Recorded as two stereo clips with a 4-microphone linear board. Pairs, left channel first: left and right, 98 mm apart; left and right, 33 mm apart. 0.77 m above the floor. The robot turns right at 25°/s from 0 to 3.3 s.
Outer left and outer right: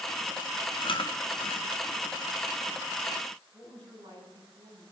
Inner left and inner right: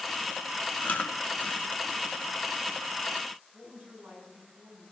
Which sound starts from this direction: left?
Chewing, at 0.8 s.